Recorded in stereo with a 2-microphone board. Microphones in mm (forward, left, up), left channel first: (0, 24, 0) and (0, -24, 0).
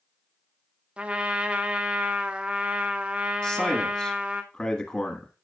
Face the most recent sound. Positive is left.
turn(degrees=25)  # may be behind; listen again after turning